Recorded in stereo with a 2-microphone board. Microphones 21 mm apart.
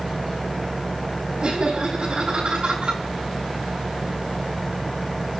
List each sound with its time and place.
1.4 s laughter: 60° right (ahead or behind), 6 m